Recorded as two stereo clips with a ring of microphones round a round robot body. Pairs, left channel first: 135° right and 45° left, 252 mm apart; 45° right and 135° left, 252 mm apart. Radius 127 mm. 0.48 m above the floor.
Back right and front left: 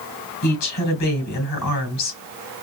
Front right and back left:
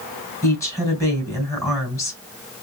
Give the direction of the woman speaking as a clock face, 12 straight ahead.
4 o'clock.